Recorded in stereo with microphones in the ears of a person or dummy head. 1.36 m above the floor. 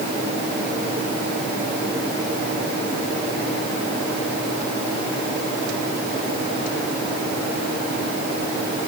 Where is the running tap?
I don't hear a running tap.